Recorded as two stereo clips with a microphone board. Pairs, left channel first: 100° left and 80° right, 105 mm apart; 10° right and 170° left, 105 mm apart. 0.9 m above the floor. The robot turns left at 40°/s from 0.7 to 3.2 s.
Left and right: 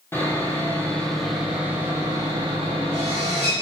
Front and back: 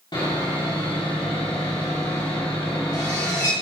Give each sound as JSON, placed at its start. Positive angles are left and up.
{"t": 0.1, "sound": "sawing", "azimuth_deg": 35, "distance_m": 2.5}